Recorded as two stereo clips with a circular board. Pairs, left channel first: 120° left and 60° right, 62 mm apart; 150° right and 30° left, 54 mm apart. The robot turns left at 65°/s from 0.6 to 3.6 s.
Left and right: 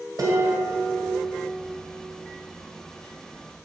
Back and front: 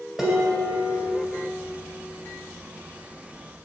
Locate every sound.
0.2 s dishes clattering: 50° right, 2.0 m; by 1.1 s 85° right, 2.0 m